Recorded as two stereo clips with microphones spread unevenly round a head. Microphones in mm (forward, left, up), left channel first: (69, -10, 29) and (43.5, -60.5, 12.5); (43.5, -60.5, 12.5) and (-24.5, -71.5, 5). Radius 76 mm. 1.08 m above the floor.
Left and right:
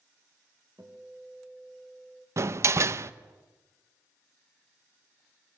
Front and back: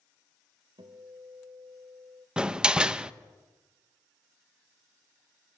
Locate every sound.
0.8 s a guitar: straight behind, 2.5 m
2.4 s a door slam: 95° right, 0.9 m